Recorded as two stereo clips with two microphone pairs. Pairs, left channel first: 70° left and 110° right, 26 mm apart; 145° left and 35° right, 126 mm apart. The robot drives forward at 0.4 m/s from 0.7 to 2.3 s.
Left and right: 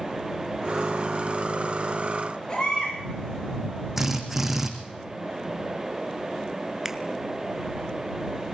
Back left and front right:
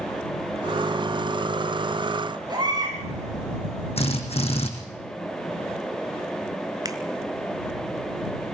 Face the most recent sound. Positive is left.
turn(degrees=-45)